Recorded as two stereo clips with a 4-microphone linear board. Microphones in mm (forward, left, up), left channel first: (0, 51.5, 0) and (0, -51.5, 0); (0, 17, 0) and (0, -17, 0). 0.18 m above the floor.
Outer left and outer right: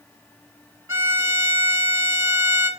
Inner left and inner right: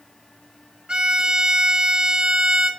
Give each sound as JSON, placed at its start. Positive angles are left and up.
{"t": 0.9, "sound": "a violin", "side_deg": -25, "distance_m": 1.7}